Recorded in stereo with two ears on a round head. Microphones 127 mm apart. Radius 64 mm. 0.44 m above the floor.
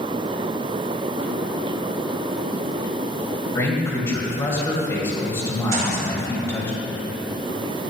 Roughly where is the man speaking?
Centre.